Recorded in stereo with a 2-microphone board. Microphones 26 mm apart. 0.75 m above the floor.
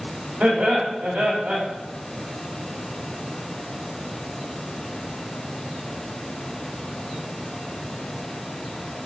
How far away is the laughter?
About 2 m.